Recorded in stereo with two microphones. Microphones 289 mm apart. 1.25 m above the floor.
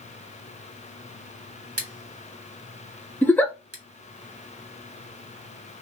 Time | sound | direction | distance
1.8 | scissors | 55° right (ahead or behind) | 1.3 m
3.2 | a giggle | 5° left (ahead or behind) | 0.6 m